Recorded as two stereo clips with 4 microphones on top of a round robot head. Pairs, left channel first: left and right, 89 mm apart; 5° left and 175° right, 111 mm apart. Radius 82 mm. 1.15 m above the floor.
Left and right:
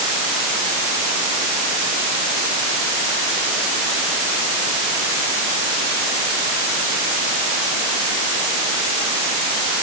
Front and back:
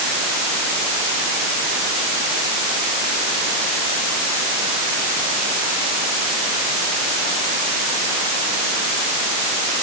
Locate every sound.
Only background noise.